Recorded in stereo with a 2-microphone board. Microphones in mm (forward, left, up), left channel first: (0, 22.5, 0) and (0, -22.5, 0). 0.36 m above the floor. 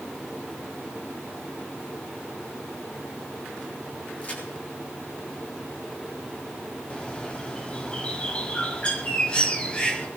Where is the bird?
25° left (ahead or behind), 2 m.